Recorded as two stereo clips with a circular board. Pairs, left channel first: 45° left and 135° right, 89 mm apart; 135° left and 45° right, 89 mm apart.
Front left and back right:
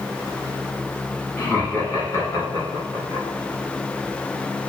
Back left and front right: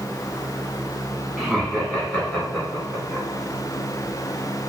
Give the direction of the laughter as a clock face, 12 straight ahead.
10 o'clock.